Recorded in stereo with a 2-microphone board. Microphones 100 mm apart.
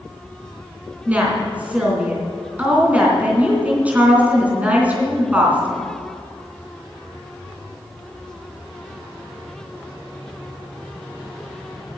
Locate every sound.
1.1 s a woman speaking: 15° right (ahead or behind), 3 m